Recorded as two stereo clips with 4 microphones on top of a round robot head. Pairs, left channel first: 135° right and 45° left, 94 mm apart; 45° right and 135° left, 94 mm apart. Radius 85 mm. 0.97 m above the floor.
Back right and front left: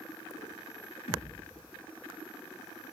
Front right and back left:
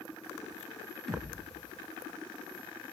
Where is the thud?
130° right, 3.5 m.